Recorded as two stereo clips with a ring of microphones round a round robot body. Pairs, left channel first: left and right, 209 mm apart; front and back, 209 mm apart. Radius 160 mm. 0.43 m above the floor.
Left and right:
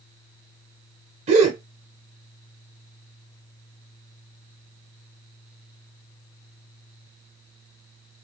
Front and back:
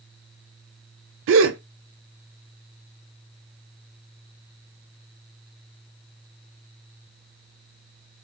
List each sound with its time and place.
1.3 s a gasp: 155° right, 0.6 m